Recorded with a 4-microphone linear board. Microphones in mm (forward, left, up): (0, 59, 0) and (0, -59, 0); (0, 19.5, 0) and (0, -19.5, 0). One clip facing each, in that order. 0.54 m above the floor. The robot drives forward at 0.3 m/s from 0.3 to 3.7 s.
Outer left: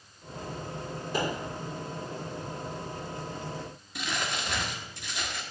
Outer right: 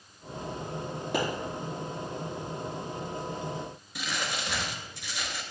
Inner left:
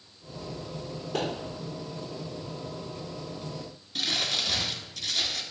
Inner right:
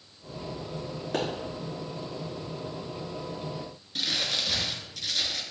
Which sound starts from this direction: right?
A pop, at 1.1 s.